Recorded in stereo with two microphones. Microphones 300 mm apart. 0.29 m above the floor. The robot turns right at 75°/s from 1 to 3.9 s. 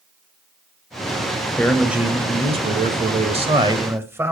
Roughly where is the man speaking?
Centre.